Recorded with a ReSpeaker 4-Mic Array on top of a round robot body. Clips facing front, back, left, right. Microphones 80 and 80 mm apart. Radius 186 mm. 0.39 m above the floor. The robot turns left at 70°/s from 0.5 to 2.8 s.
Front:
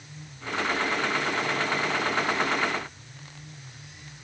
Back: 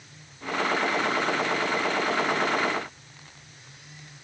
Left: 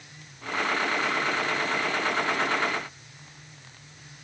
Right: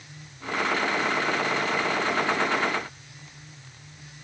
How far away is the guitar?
No guitar in this recording.